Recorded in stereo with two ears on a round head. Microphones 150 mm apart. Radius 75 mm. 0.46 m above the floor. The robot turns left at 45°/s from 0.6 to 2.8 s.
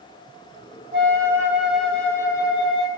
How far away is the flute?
About 2.5 m.